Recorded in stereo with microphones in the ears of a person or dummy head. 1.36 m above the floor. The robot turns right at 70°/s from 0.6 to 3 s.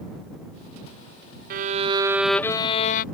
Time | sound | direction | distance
1.5 | a violin | 55° right | ?